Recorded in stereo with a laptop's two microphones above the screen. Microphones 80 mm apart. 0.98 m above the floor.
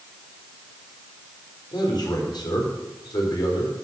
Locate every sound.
1.7 s a man speaking: 60° left (ahead or behind), 3 m